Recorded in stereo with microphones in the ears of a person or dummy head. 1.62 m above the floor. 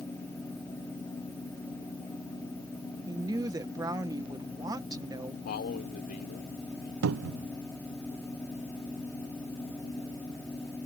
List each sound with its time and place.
3.1 s a woman speaking: 20° right (ahead or behind)
5.5 s a man speaking: 50° left (ahead or behind)
7.0 s a cupboard door: 80° right